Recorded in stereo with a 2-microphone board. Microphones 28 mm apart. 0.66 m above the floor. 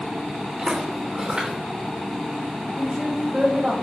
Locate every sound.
0.6 s footsteps: 25° right (ahead or behind), 4 m
2.8 s a woman speaking: 30° right (ahead or behind), 3 m